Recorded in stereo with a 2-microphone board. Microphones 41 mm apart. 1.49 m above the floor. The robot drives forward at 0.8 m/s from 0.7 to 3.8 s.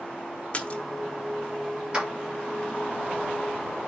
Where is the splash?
30° left (ahead or behind), 1.2 m.